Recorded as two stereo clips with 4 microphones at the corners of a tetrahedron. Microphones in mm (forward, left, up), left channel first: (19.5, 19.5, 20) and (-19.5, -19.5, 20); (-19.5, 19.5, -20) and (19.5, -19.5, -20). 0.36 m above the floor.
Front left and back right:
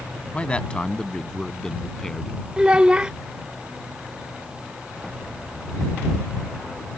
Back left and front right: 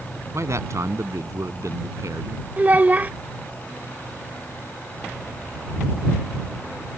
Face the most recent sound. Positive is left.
turn(degrees=-75)